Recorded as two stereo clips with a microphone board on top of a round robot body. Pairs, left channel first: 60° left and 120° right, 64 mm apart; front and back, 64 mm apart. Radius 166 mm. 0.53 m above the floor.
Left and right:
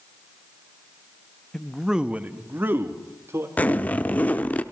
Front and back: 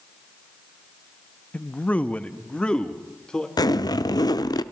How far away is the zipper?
About 0.8 m.